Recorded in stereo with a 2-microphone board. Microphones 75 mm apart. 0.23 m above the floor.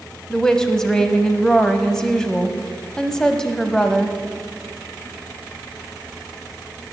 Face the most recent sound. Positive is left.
turn(degrees=5)  # may be behind; listen again after turning